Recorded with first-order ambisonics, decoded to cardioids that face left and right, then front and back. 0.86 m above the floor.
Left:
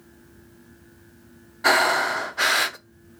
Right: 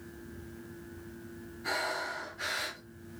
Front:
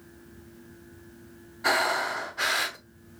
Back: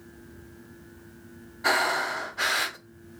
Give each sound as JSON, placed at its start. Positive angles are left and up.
{"t": 1.6, "sound": "breathing", "azimuth_deg": 95, "distance_m": 0.8}